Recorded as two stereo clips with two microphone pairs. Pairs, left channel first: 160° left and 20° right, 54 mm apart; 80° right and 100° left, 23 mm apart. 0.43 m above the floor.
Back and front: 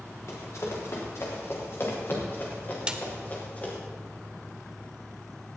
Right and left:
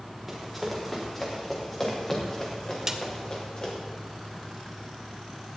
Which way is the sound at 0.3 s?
175° right.